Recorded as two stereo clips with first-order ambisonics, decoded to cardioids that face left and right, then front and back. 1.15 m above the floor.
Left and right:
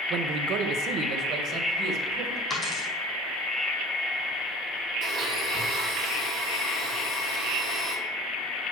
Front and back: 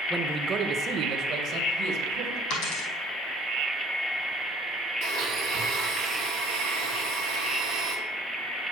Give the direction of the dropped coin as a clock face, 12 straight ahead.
12 o'clock.